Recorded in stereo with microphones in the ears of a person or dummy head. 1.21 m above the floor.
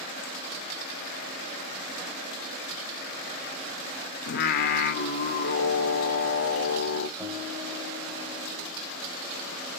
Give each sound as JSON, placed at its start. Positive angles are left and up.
{"t": 4.3, "sound": "singing", "side_deg": 55, "distance_m": 0.6}
{"t": 7.2, "sound": "a guitar", "side_deg": 10, "distance_m": 4.5}